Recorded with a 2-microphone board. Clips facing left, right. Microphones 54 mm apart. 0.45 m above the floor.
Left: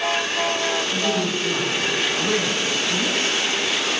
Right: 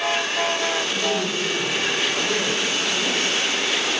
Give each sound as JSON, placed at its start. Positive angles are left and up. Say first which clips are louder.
{"t": 0.9, "sound": "a woman speaking", "louder": "left 1 dB", "side_deg": 40, "distance_m": 4.5}